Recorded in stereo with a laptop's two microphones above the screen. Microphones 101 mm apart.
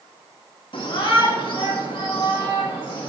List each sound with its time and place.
0.7 s a shout: 55° left (ahead or behind), 1.6 m